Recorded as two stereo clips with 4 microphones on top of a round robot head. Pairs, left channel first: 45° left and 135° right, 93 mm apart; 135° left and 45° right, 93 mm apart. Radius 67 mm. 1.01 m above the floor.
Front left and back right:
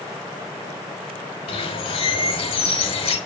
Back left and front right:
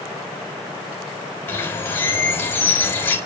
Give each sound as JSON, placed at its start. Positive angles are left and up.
{"t": 1.5, "sound": "a bird", "azimuth_deg": 70, "distance_m": 5.5}